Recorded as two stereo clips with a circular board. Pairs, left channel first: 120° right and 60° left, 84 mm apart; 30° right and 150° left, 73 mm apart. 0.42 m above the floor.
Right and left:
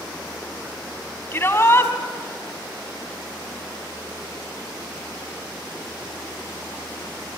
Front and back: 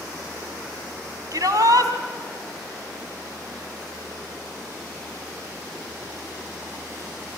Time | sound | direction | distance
1.3 | a shout | straight behind | 3 m